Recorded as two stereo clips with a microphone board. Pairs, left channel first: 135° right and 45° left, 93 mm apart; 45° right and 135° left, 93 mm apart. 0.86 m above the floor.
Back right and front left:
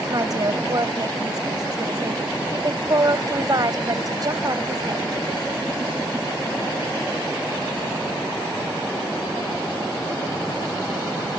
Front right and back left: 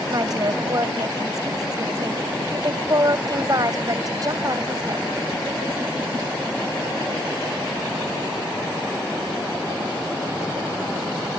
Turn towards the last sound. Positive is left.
turn(degrees=90)